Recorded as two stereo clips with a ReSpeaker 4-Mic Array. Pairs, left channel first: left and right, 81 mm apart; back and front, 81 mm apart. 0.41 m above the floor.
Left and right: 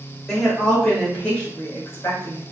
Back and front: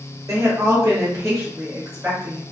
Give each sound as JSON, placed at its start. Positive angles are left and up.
{"t": 0.3, "sound": "a woman speaking", "azimuth_deg": 0, "distance_m": 1.8}